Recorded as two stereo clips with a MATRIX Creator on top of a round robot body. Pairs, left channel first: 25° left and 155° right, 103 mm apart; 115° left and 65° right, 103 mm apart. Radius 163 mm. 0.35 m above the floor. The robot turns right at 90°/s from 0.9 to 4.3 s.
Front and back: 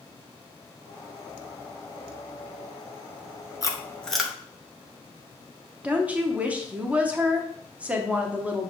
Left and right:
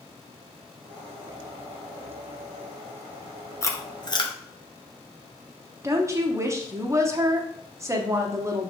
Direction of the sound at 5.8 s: 95° right.